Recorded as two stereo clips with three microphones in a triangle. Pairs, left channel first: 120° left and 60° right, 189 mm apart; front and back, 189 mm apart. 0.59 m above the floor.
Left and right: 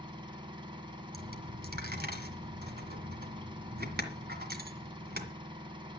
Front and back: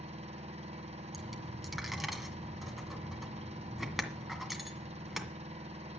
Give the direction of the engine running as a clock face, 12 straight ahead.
4 o'clock.